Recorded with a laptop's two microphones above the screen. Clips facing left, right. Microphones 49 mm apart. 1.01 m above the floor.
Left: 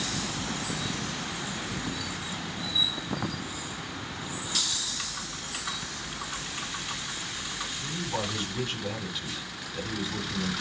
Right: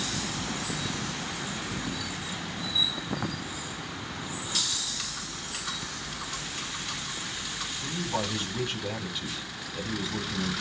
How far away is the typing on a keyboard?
About 4 m.